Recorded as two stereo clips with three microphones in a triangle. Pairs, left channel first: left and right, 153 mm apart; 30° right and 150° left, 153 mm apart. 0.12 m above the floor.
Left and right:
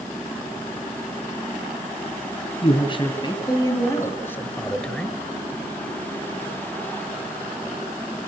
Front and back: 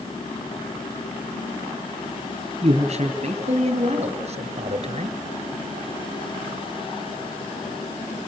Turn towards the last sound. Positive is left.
turn(degrees=180)